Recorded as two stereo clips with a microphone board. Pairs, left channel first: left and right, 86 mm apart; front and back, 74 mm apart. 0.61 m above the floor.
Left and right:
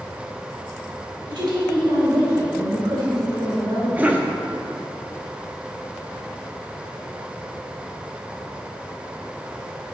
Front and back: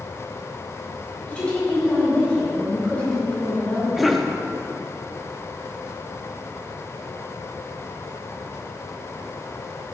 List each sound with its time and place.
1.3 s a woman speaking: 70° right, 2 m
4.0 s a cough: 95° right, 0.6 m